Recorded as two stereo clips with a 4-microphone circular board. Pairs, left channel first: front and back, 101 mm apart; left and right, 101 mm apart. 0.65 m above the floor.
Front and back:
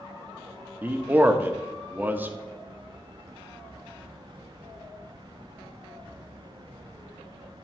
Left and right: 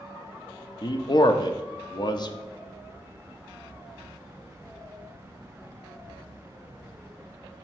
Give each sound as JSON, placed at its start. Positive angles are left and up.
{"t": 0.8, "sound": "a man speaking", "azimuth_deg": 115, "distance_m": 0.8}